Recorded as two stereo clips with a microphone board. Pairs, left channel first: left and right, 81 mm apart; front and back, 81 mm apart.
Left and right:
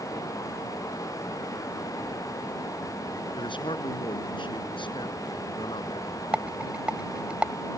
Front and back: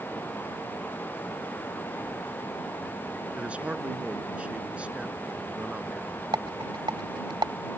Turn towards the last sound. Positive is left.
turn(degrees=-165)